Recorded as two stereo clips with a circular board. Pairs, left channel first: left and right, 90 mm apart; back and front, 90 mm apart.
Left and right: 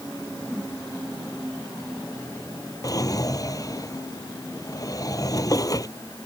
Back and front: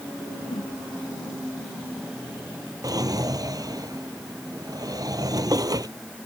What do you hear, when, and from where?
0.5 s a whoosh: 175° left
2.8 s a drawer: 45° left